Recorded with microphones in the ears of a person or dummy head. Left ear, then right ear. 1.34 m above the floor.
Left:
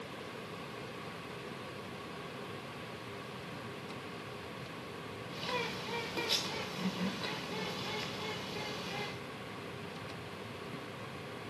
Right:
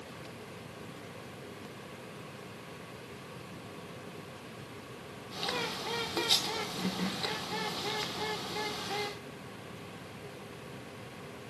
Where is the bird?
20° right (ahead or behind), 0.8 m.